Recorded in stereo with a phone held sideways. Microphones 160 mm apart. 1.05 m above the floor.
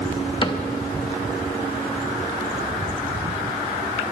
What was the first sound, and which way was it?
A cupboard door, 30° left (ahead or behind).